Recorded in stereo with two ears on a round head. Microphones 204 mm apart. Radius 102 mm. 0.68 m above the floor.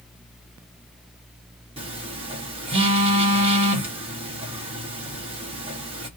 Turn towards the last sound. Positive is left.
turn(degrees=-25)  # may be behind; listen again after turning